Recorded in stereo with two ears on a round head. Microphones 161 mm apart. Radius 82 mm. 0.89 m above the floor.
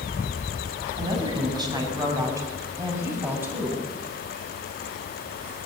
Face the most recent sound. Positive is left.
turn(degrees=-10)  # may be behind; listen again after turning